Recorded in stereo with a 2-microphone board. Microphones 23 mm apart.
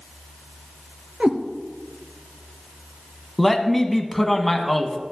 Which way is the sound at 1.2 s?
65° right (ahead or behind).